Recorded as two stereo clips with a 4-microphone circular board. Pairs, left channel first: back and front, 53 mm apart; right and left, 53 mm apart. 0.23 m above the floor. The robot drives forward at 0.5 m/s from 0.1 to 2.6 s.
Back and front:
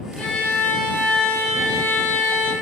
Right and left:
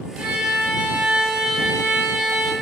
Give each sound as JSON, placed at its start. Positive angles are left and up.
{"t": 0.2, "sound": "a violin", "azimuth_deg": 140, "distance_m": 1.4}